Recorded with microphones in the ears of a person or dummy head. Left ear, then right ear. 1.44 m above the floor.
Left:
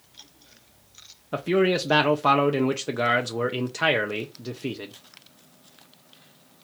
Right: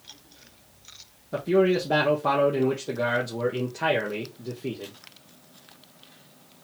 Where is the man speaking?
45° left (ahead or behind), 0.6 m.